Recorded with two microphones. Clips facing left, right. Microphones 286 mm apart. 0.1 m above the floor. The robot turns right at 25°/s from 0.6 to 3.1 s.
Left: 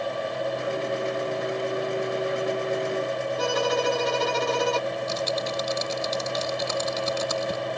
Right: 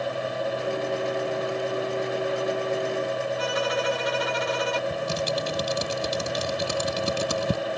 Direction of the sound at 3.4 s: 50° left (ahead or behind).